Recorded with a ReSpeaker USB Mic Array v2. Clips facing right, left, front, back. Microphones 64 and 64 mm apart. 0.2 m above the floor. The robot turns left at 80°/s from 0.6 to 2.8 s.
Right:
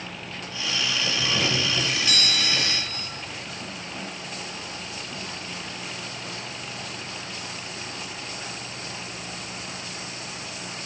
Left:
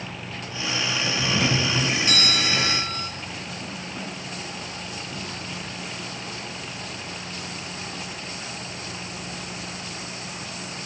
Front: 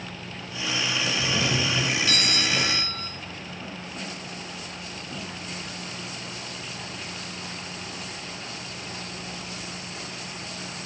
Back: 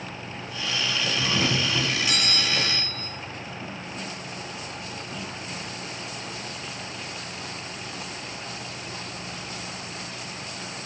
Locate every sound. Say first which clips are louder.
1.2 s a doorbell: left 3 dB, back 2 dB; 175° right, 2.5 m; by 3.1 s 55° left, 2.5 m